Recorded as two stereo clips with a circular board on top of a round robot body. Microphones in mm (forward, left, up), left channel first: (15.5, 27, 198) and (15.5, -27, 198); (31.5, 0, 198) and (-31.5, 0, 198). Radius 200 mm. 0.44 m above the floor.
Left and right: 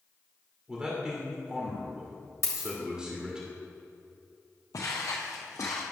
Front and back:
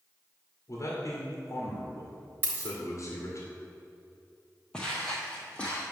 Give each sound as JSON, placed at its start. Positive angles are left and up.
{"t": 0.7, "sound": "a man speaking", "azimuth_deg": -20, "distance_m": 2.0}
{"t": 2.4, "sound": "a dropped coin", "azimuth_deg": 125, "distance_m": 1.5}
{"t": 4.7, "sound": "footsteps", "azimuth_deg": 80, "distance_m": 1.1}